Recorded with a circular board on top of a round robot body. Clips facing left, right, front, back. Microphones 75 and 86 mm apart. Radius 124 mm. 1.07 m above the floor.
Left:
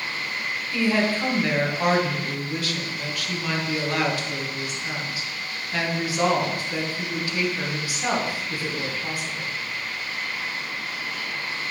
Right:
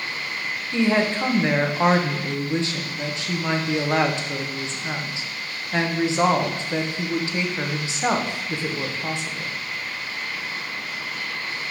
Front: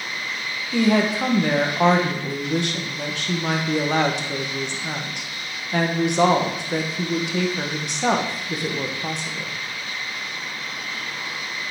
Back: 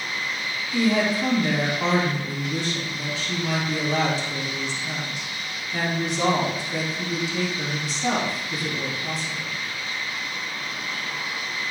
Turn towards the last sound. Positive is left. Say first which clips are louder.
# right 2 dB, front 3 dB
turn(degrees=-25)